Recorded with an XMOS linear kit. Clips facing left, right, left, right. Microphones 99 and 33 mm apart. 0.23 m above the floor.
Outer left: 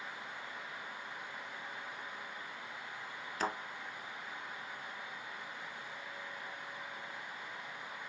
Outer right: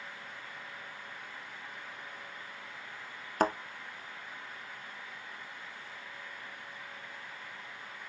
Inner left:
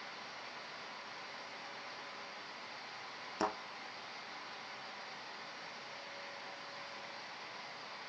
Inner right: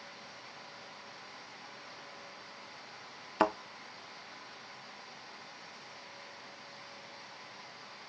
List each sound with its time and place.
3.4 s a thud: 50° right (ahead or behind), 0.9 m